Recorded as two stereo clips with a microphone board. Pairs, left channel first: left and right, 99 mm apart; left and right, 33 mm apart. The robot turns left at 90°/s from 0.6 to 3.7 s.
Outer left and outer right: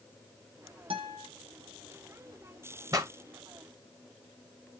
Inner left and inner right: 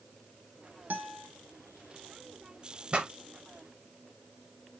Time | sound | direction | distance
0.9 | a guitar | 115° right | 1.0 m
2.9 | a pop | 35° right (ahead or behind) | 0.7 m